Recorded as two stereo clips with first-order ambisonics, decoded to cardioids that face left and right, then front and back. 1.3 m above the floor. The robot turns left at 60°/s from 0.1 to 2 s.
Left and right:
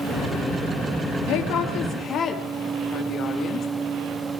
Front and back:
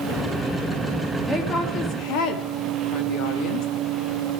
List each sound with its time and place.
1.3 s a woman speaking: 75° left, 1.9 m; by 3.7 s 30° left, 1.9 m